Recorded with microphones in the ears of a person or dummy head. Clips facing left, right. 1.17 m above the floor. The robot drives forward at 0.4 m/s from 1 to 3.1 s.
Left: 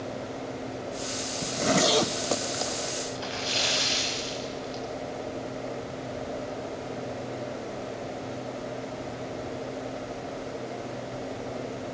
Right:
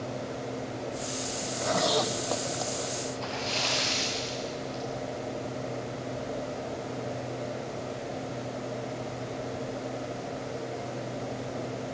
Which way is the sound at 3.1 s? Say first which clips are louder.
Even; 15° left (ahead or behind).